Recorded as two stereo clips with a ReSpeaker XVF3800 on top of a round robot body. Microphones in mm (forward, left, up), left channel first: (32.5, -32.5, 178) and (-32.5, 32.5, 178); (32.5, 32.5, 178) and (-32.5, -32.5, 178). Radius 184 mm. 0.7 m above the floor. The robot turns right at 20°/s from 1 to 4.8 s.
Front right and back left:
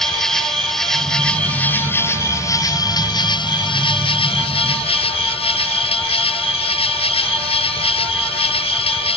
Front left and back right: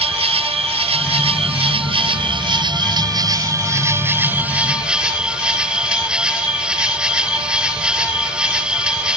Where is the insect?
130° right; by 9.2 s 55° right.